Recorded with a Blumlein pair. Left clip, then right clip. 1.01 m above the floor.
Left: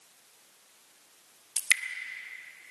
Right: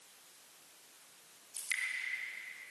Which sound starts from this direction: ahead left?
Dripping, at 1.6 s.